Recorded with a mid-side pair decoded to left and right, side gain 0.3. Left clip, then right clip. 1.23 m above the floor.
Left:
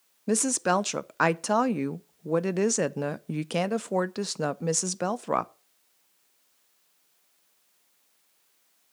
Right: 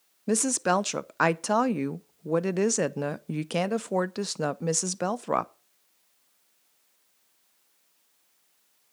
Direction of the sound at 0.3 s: 5° right.